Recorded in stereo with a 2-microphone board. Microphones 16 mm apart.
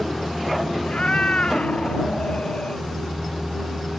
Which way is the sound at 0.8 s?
75° left (ahead or behind).